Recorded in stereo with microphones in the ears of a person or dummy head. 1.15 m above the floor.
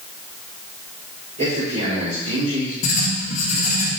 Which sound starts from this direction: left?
Writing, at 2.8 s.